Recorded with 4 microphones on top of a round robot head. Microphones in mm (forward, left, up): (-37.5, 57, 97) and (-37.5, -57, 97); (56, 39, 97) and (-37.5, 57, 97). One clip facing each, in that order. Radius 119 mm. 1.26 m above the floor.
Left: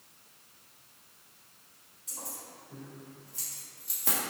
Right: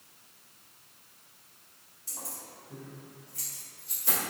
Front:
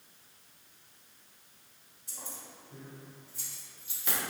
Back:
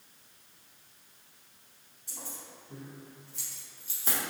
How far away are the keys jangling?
About 1.0 m.